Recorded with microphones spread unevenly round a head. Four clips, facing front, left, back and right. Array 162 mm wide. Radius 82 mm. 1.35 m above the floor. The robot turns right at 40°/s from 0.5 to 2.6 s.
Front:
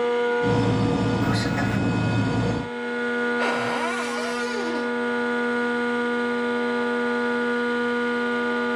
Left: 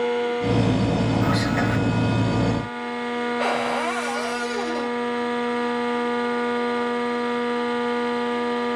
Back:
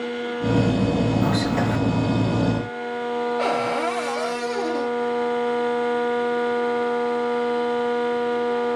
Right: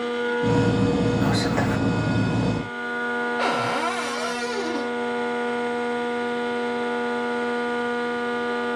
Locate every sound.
1.2 s whispering: 145° right, 0.8 m; by 1.8 s 120° right, 0.8 m
3.4 s a cupboard door: 120° right, 1.6 m